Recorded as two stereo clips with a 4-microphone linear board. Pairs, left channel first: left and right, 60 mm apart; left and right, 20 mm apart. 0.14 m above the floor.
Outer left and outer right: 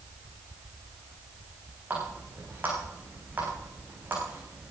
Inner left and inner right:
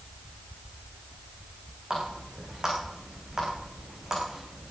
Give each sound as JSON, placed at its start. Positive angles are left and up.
{"t": 1.9, "sound": "a running tap", "side_deg": -30, "distance_m": 6.0}